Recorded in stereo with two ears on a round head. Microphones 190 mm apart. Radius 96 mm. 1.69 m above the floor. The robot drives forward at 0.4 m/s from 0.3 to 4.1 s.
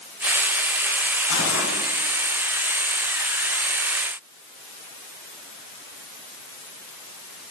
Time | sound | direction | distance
1.3 | cutlery clinking | 75° left (ahead or behind) | 8.5 m